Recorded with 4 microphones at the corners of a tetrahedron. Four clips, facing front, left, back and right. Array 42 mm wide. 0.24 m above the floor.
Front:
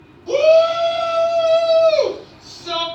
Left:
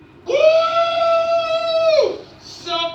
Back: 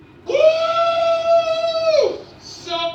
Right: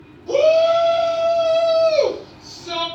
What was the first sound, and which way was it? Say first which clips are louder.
A shout: left 1 dB, front 2 dB; 95° left.